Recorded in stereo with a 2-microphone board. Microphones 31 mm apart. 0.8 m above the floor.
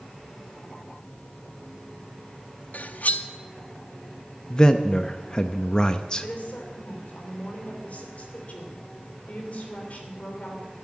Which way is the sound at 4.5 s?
25° left (ahead or behind).